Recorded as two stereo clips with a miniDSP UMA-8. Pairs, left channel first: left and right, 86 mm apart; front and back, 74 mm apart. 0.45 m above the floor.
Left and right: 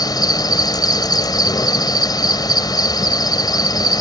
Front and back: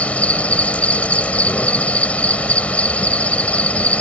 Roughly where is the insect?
Left.